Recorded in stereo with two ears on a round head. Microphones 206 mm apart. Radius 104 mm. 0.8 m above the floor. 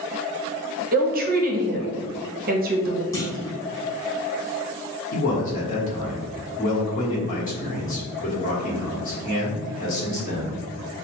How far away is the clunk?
About 0.8 m.